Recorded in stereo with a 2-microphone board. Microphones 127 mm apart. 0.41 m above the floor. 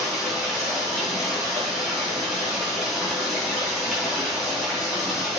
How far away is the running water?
About 4 m.